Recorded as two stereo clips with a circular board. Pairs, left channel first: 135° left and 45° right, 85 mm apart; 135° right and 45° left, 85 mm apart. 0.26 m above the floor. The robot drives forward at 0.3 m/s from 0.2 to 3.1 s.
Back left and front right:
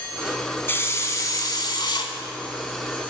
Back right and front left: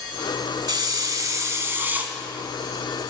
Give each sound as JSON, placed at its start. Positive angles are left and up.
{"t": 0.7, "sound": "a hiss", "azimuth_deg": 70, "distance_m": 0.6}